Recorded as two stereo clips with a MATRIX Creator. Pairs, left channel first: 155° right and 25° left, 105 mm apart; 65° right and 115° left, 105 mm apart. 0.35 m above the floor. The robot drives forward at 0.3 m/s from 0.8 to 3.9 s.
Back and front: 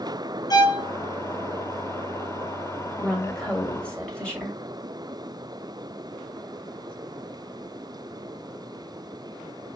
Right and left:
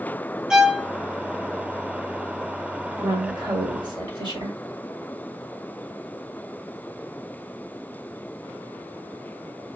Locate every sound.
0.5 s a violin: 165° right, 0.7 m
3.0 s a woman speaking: 115° left, 1.6 m; by 4.6 s 125° left, 1.7 m